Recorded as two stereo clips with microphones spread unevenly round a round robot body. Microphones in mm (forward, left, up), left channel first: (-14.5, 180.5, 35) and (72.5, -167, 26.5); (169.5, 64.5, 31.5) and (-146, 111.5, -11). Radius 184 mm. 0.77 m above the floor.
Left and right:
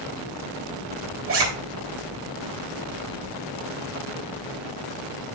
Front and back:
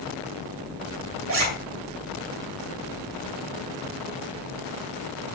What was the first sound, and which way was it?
A zipper, 130° right.